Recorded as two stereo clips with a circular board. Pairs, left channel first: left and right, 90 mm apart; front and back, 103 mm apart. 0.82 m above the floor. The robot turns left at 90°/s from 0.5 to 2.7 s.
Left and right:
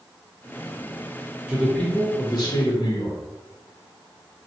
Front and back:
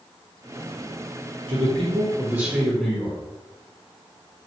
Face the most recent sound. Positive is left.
turn(degrees=85)